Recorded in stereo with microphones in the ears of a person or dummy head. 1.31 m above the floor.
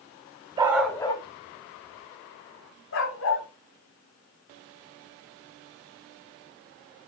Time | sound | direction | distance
0.6 | a dog barking | 20° right (ahead or behind) | 0.9 m